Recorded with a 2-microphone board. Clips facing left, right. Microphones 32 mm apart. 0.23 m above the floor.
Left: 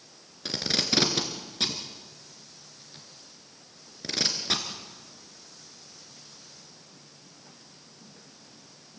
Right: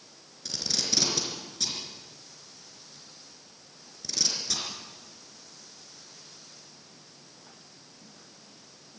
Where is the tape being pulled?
40° left (ahead or behind), 2.5 m.